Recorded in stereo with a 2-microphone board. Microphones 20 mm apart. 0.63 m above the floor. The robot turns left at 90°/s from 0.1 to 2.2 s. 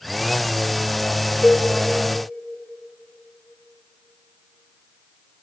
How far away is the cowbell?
About 1.1 m.